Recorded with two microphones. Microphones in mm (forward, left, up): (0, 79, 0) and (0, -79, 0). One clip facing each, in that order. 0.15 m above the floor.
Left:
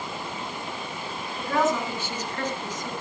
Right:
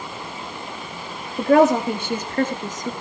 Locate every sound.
1.4 s a woman speaking: 65° right (ahead or behind), 3.5 m; by 2.9 s 40° right (ahead or behind), 2.5 m